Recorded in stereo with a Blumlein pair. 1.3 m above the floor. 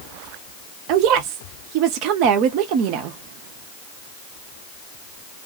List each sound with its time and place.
0.9 s a woman speaking: 40° right, 0.7 m